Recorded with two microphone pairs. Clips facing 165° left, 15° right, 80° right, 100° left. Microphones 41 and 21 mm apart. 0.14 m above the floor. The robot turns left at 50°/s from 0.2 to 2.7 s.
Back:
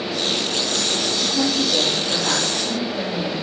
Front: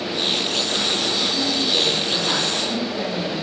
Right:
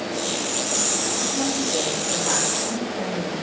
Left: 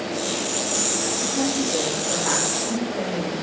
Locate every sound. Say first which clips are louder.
1.2 s a woman speaking: back 1 dB, left 1 dB; 170° left, 5.5 m; by 3.3 s 95° left, 5.5 m